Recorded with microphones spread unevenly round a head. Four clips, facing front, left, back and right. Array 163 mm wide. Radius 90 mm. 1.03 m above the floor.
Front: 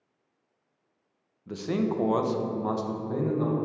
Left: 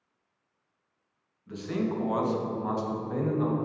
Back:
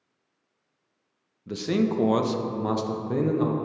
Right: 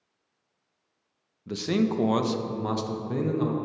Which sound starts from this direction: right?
A man speaking, at 1.5 s.